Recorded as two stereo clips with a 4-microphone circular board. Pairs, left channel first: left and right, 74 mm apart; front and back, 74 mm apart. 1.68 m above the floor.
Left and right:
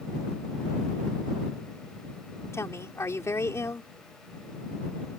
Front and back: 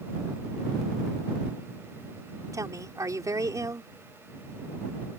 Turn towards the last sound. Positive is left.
turn(degrees=140)